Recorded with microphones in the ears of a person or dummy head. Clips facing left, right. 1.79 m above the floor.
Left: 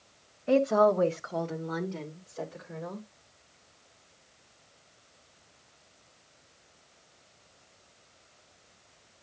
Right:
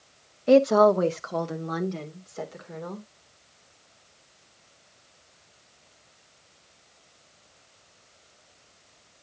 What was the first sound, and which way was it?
A woman speaking, 45° right (ahead or behind).